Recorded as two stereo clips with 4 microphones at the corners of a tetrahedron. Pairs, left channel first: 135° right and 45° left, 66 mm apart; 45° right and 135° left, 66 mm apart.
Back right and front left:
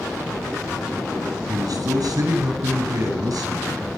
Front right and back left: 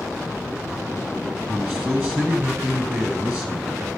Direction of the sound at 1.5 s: 70° left.